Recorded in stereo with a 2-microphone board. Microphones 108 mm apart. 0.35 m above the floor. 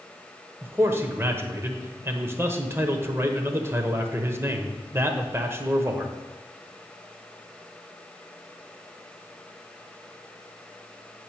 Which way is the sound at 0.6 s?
20° right (ahead or behind).